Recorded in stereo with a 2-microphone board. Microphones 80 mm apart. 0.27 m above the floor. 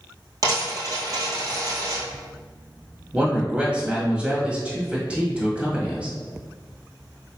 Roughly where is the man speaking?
Centre.